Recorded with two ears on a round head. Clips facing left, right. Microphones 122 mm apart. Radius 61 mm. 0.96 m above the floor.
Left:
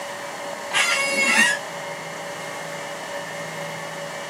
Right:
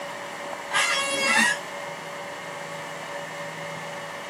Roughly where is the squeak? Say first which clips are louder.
Left 2 dB; centre.